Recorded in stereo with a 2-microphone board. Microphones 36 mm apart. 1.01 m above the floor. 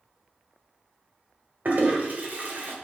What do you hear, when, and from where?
1.6 s a toilet flushing: 50° right (ahead or behind), 1.7 m